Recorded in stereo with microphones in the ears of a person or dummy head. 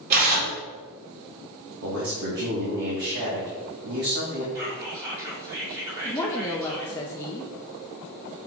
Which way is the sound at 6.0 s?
15° left (ahead or behind).